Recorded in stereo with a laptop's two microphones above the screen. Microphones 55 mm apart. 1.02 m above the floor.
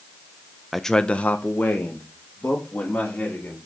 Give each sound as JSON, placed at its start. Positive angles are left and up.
{"t": 0.7, "sound": "a man speaking", "side_deg": 0, "distance_m": 0.5}